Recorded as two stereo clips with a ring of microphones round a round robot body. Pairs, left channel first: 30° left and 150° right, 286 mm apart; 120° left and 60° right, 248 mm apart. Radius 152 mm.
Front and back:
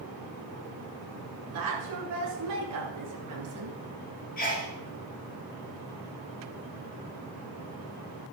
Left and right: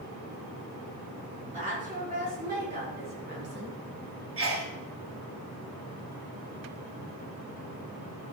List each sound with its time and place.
1.5 s a woman speaking: 125° right, 4 m; by 3.8 s 110° right, 3 m
4.4 s a sneeze: 30° right, 4 m